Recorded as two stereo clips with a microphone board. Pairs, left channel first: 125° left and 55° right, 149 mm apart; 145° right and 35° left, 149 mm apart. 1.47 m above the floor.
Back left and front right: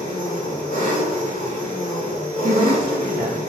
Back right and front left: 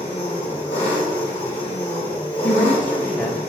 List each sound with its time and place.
0.0 s an engine running: 145° left, 3 m
2.4 s a woman speaking: 65° right, 0.5 m